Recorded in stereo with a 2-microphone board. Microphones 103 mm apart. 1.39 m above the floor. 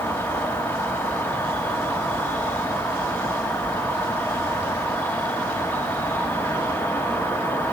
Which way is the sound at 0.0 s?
20° left (ahead or behind).